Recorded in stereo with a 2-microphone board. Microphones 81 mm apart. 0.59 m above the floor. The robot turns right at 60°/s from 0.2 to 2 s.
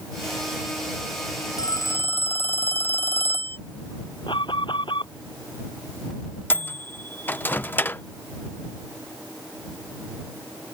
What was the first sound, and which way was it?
A phone ringing, 55° left (ahead or behind).